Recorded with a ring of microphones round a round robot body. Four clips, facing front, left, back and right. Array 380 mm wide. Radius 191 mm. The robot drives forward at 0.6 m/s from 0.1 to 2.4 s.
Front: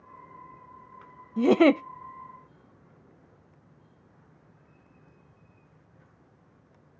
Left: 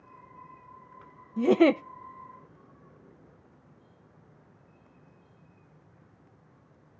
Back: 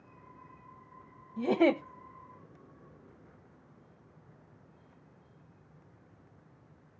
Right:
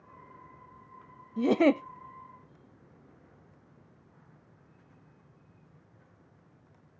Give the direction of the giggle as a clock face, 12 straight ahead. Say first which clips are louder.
Left 3 dB, front 7 dB; 12 o'clock.